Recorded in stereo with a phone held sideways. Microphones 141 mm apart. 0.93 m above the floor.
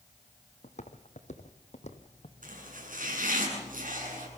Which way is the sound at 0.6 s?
55° left (ahead or behind).